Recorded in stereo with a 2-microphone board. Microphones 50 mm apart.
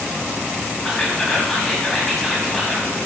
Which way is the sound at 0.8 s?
10° left (ahead or behind).